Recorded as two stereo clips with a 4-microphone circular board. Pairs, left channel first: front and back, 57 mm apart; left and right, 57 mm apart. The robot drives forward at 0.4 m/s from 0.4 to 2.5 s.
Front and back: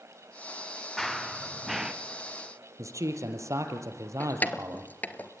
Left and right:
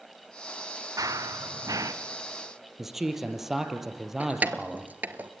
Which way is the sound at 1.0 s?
85° right.